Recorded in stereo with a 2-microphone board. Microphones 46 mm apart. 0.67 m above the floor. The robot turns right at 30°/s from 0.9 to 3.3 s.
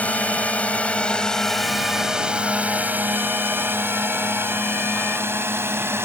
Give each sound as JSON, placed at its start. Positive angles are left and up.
{"t": 0.0, "sound": "a drone", "side_deg": 35}